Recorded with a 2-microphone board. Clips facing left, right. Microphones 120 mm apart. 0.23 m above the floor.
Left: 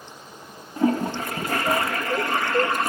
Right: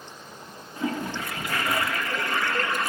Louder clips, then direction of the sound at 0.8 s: Left 7 dB; 45° left (ahead or behind).